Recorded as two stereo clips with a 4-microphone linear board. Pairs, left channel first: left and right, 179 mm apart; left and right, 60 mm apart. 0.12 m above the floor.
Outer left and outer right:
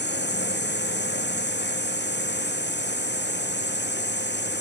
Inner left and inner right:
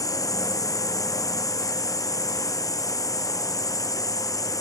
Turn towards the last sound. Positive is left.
turn(degrees=75)  # may be behind; listen again after turning